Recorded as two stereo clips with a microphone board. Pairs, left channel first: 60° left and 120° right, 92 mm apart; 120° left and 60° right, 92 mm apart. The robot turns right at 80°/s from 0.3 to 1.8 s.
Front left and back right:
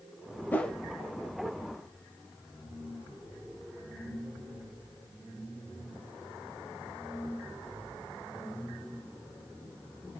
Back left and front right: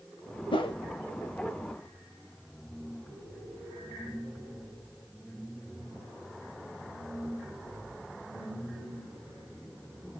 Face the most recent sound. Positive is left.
turn(degrees=-130)